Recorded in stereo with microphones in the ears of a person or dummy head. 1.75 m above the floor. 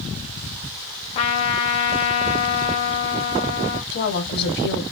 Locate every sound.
1.1 s a trumpet: 35° left (ahead or behind), 1.1 m
3.9 s a woman speaking: 60° left (ahead or behind), 1.5 m